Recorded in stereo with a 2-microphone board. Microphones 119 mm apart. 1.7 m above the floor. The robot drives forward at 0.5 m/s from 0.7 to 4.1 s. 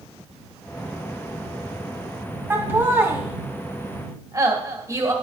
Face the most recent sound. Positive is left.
turn(degrees=-30)  # may be behind; listen again after turning